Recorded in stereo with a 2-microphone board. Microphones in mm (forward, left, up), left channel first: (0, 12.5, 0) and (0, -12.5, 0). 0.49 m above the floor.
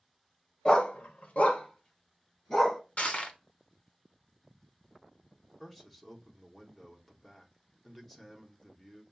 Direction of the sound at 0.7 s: 40° left (ahead or behind).